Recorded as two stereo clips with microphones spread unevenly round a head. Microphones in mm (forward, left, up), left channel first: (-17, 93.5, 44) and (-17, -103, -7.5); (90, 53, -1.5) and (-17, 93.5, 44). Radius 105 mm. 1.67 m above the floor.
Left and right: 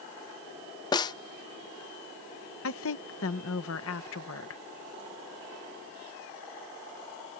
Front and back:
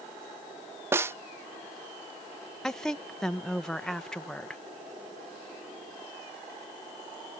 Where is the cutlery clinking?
I don't hear cutlery clinking.